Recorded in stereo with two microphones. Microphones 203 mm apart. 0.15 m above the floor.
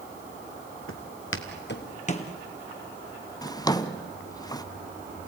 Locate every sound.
0.9 s footsteps: 85° left, 2 m; by 2.3 s 25° left (ahead or behind), 1.7 m
3.4 s a drawer: 20° left (ahead or behind), 0.7 m